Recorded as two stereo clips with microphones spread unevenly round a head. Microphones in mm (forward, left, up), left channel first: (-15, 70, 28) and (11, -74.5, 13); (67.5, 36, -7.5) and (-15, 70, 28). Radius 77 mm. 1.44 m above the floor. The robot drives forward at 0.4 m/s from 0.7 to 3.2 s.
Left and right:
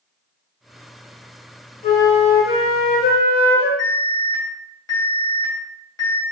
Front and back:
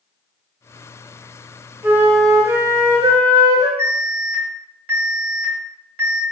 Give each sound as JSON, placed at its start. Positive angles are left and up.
{"t": 1.8, "sound": "a flute", "azimuth_deg": 115, "distance_m": 0.6}
{"t": 3.8, "sound": "an alarm", "azimuth_deg": 170, "distance_m": 1.5}